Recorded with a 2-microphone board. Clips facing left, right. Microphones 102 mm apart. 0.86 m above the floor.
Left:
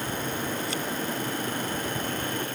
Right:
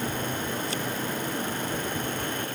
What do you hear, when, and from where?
Only background noise.